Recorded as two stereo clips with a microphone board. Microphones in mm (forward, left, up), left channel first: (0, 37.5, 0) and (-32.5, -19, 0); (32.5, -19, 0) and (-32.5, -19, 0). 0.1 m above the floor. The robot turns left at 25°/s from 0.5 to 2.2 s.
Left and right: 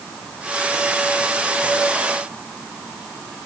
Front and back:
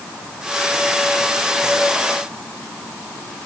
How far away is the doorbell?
I don't hear a doorbell.